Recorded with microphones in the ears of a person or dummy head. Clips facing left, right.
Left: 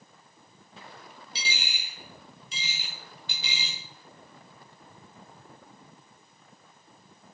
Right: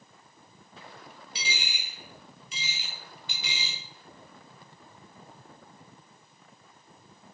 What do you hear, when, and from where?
1.4 s a dropped coin: 30° left (ahead or behind), 0.8 m